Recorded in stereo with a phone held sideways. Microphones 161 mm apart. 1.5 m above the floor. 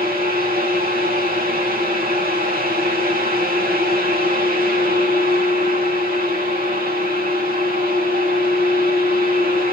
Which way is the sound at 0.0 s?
70° right (ahead or behind).